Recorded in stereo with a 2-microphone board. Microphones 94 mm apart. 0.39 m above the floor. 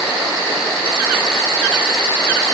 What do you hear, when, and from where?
Only background noise.